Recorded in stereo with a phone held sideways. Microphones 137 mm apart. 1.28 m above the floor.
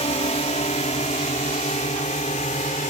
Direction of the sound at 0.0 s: 50° left (ahead or behind).